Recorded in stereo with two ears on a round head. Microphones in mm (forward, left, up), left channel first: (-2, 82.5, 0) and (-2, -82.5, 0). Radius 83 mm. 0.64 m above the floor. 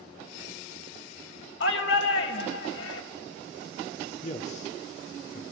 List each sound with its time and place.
1.6 s a shout: 70° left (ahead or behind), 4 m
4.2 s a man speaking: 40° left (ahead or behind), 1.9 m